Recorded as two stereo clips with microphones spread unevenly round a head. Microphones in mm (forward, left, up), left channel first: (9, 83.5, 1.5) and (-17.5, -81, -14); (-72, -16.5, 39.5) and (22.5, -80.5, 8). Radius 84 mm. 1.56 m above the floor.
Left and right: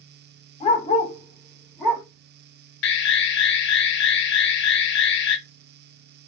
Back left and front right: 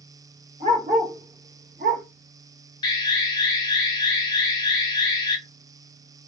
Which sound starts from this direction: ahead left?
A dog barking, at 0.6 s.